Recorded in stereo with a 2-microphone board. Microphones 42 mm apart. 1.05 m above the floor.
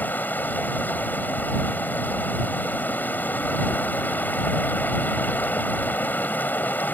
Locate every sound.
0.0 s running water: 50° left (ahead or behind)